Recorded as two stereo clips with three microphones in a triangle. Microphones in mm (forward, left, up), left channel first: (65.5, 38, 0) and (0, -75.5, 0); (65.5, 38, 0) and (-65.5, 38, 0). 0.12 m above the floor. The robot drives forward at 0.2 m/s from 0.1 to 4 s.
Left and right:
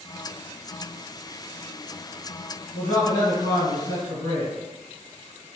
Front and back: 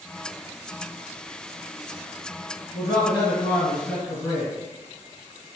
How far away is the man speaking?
About 1.8 m.